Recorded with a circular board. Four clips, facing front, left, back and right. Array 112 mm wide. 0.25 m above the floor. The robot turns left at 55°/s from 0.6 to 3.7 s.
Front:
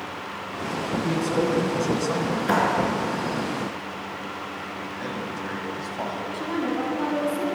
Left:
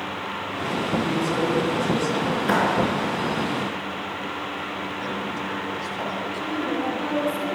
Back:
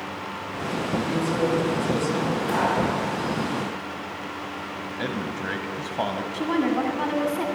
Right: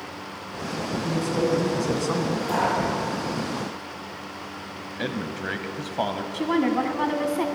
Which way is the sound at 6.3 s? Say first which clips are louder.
Right 7 dB, back 4 dB; 115° right.